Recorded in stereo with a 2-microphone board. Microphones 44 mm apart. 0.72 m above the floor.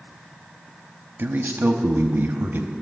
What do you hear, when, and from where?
1.2 s a man speaking: 55° right (ahead or behind), 0.8 m